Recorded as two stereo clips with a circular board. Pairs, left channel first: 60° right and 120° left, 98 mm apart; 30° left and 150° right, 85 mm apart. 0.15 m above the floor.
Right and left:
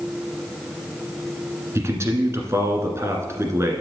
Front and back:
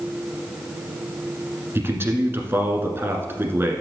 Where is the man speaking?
165° left, 1.4 m.